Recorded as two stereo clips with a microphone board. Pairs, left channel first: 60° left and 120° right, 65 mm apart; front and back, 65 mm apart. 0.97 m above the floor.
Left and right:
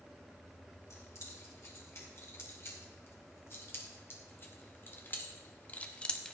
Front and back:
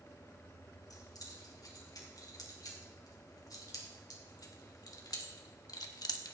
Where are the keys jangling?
15° left, 5 m; by 6.3 s 20° right, 0.9 m.